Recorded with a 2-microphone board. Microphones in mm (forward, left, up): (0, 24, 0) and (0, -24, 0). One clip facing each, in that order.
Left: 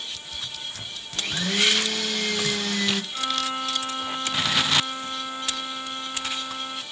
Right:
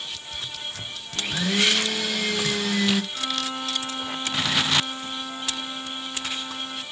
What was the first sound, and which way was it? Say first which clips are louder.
A blender: right 1 dB; 5° right (ahead or behind).